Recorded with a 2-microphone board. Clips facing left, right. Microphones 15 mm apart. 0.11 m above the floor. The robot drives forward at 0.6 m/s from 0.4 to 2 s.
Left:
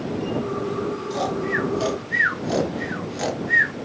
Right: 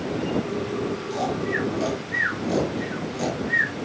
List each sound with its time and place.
1.1 s snoring: 20° left (ahead or behind), 0.8 m